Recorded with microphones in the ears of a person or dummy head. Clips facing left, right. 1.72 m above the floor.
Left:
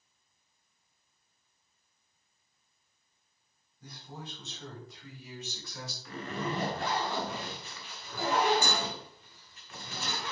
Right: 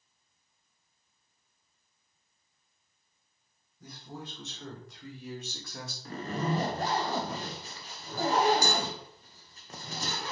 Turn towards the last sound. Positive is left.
turn(degrees=-35)  # may be behind; listen again after turning